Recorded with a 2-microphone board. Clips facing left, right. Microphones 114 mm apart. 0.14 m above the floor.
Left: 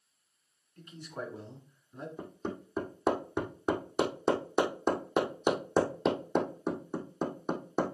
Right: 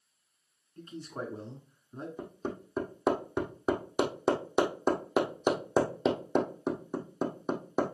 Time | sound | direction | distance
0.8 | a man speaking | 30° right (ahead or behind) | 1.7 m
2.2 | hammering | 5° right (ahead or behind) | 2.0 m